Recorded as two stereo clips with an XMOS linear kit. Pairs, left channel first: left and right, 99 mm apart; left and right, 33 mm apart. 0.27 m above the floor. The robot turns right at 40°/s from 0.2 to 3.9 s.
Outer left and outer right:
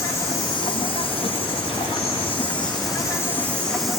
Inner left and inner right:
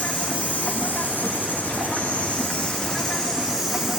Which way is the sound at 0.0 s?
35° left.